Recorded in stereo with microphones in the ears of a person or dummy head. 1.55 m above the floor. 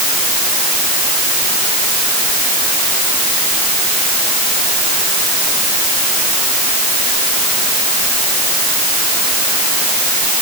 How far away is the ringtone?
I don't hear a ringtone.